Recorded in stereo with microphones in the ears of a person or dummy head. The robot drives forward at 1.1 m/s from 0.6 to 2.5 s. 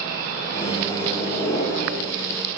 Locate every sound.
0.6 s a microwave: 35° left (ahead or behind), 1.8 m; by 2.0 s 20° left (ahead or behind), 3 m